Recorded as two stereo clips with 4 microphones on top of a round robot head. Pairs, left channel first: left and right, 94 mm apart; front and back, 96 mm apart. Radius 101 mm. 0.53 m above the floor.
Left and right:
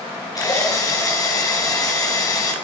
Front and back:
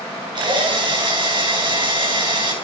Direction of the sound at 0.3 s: 140° left.